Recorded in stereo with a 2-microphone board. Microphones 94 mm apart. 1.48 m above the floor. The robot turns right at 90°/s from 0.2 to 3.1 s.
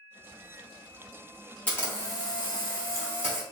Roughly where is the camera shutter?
Ahead.